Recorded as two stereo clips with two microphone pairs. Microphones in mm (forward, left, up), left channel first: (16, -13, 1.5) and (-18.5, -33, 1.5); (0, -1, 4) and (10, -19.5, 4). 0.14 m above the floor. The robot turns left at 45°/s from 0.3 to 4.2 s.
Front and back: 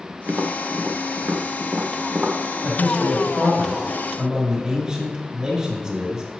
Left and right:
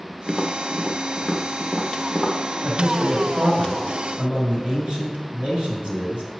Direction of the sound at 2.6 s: 20° right.